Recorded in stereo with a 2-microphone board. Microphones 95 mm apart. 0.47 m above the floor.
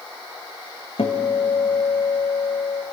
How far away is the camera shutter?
No camera shutter in this recording.